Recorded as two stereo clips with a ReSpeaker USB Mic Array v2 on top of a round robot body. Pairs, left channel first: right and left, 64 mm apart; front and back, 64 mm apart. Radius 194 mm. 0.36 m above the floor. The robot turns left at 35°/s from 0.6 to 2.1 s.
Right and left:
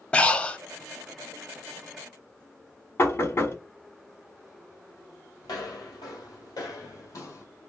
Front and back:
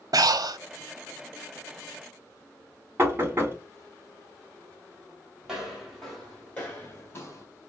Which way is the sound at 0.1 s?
165° right.